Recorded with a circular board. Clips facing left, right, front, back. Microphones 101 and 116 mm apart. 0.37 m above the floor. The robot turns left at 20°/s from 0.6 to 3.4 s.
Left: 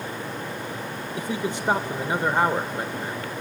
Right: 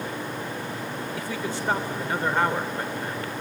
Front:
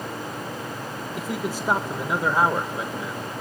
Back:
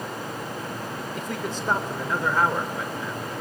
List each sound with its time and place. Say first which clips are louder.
1.2 s a man speaking: left 5 dB, front 4 dB; 75° left, 0.8 m; by 3.3 s 30° left, 0.8 m